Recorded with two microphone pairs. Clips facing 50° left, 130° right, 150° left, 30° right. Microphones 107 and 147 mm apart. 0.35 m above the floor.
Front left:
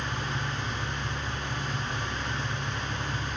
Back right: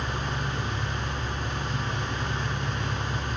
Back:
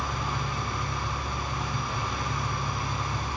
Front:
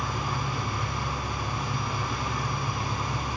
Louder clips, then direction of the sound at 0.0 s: Back right 2 dB, front 1 dB; 105° right.